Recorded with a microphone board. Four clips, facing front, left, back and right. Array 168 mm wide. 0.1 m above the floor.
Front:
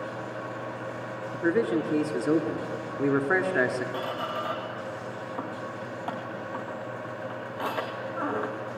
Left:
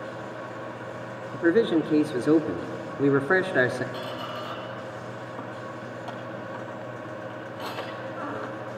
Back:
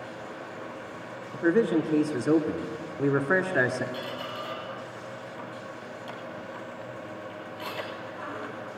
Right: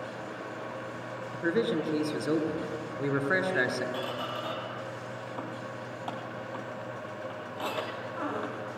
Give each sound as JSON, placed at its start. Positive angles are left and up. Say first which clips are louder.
{"t": 1.3, "sound": "a man speaking", "louder": "left 7 dB, back 2 dB", "azimuth_deg": 100, "distance_m": 1.4}
{"t": 3.9, "sound": "a squeak", "louder": "left 1 dB, front 4 dB", "azimuth_deg": -25, "distance_m": 2.5}